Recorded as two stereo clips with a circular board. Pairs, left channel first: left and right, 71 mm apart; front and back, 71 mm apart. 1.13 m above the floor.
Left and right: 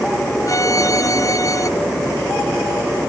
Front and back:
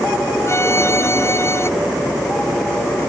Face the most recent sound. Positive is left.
turn(degrees=50)